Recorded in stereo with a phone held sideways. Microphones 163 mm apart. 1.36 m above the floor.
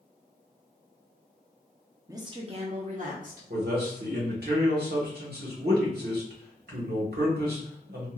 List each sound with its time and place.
2.1 s a woman speaking: 20° right (ahead or behind), 0.7 m; by 3.4 s 60° right (ahead or behind), 1.1 m
3.5 s a man speaking: 75° right (ahead or behind), 1.4 m